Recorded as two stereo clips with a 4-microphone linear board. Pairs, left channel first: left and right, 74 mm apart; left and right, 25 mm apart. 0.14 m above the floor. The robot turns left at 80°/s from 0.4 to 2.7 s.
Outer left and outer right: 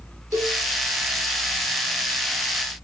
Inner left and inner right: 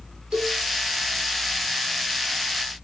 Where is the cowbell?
45° right (ahead or behind), 4 m; by 0.6 s 30° right (ahead or behind), 4 m.